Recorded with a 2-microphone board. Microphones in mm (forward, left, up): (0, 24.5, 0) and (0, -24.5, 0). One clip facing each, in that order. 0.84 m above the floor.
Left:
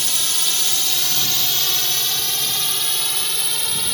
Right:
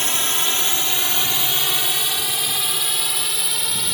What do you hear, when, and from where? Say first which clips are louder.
0.0 s a drone: right 3 dB; 35° right (ahead or behind); by 3.9 s 5° right (ahead or behind)